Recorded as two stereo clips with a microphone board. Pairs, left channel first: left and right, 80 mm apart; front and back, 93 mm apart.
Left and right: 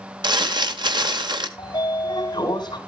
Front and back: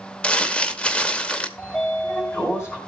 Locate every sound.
0.2 s crumpling: 80° right, 1.2 m
1.6 s a sliding door: 60° left, 3 m